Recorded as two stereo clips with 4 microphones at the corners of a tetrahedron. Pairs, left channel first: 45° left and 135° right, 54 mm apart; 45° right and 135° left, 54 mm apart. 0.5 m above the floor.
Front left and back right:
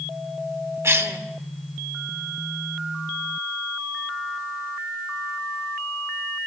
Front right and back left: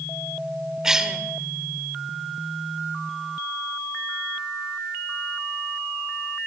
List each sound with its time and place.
0.8 s a cough: 150° right, 1.6 m